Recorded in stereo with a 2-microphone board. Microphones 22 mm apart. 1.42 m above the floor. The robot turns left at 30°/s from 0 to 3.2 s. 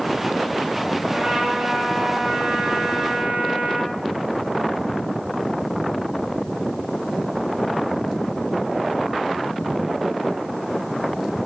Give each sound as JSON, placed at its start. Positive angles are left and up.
{"t": 1.0, "sound": "a trumpet", "azimuth_deg": -30, "distance_m": 3.0}